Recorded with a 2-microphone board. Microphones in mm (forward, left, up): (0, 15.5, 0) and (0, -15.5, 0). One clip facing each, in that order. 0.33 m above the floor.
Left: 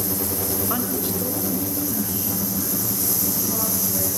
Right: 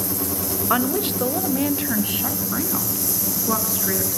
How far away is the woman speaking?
About 1.1 m.